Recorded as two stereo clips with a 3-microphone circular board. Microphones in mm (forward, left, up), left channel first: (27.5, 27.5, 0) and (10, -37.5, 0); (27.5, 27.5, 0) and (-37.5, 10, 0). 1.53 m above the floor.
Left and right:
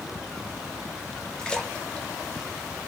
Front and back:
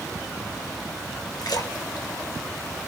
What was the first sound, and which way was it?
A splash, straight ahead.